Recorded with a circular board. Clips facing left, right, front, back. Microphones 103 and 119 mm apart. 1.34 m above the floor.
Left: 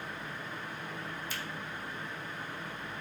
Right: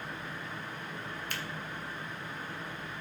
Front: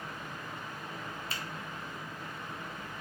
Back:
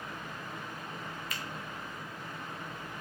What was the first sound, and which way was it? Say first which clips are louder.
A finger snap: right 1 dB, front 1 dB; 60° right.